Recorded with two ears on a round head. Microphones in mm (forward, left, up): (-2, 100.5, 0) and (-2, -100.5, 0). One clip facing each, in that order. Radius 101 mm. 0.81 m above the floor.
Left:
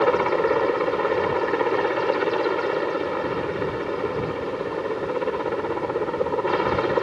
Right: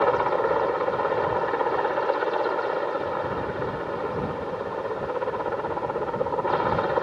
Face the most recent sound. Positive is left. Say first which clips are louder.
# left 3 dB
turn(degrees=40)  # may be behind; listen again after turning